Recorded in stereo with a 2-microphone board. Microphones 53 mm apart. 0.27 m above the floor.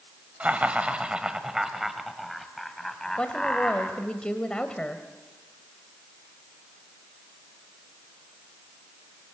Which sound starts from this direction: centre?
A woman speaking, at 3.2 s.